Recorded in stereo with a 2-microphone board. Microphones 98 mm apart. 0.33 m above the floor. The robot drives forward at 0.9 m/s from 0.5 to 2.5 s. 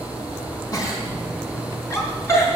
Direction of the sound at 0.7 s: 35° left (ahead or behind).